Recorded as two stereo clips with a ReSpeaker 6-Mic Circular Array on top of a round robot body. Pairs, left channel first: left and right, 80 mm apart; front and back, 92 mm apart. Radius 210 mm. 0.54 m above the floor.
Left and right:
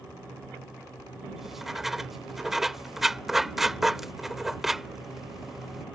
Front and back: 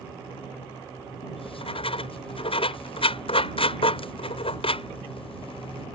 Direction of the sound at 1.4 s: 5° right.